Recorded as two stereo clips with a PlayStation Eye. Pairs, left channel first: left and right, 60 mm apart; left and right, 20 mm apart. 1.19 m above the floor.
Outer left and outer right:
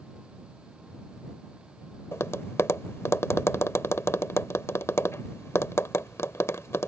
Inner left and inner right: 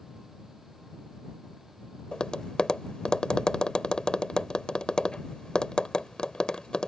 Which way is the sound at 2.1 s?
50° left (ahead or behind).